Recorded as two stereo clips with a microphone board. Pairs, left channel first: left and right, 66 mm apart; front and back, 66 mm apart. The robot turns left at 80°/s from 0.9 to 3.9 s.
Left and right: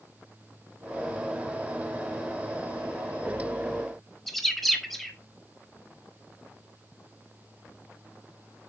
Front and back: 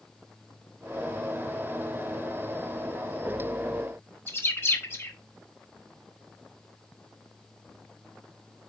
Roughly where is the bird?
Ahead.